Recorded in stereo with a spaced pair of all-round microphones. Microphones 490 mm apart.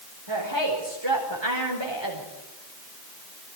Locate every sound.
0.3 s a woman speaking: 60° right (ahead or behind), 5 m